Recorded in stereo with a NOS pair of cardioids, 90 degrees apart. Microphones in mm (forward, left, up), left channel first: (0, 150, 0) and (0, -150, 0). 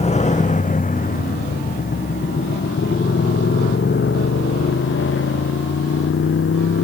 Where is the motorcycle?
20° left; by 6.8 s 45° left.